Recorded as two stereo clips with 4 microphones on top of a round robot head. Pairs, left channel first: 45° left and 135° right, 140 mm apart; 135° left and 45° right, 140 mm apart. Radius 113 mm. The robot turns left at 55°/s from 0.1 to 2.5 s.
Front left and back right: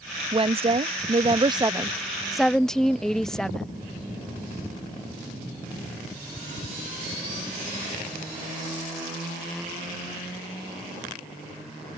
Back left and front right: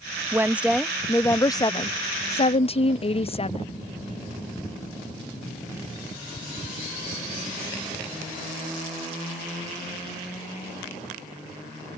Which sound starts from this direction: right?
A woman speaking, at 0.3 s.